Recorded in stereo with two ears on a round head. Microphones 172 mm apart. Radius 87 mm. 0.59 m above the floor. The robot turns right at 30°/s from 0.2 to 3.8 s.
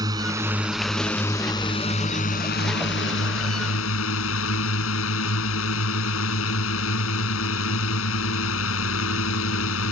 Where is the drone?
20° right; by 9.9 s 90° left.